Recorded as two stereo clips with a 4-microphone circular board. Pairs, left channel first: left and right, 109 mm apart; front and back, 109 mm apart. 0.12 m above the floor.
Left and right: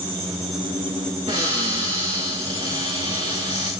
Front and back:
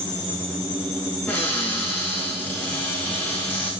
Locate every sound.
1.3 s a cupboard door: 75° right, 5 m